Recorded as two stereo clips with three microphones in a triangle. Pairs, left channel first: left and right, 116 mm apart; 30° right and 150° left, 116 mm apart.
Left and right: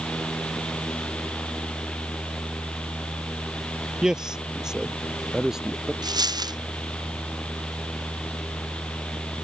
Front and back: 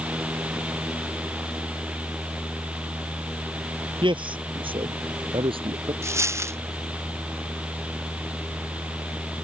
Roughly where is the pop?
I don't hear a pop.